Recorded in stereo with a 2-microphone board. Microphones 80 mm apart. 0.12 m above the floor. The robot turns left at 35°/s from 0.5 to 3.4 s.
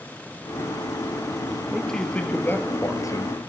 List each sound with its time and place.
1.7 s a man speaking: straight behind, 2.5 m; by 3.4 s 120° left, 2.5 m